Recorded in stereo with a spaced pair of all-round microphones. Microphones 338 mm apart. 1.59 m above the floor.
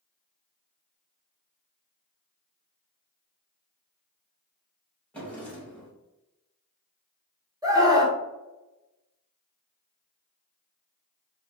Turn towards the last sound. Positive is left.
turn(degrees=-10)  # may be behind; listen again after turning